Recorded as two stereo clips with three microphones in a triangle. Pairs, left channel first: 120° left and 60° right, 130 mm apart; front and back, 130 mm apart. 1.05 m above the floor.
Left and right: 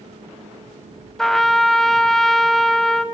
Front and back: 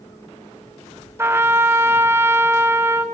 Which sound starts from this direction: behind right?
A trumpet, at 1.2 s.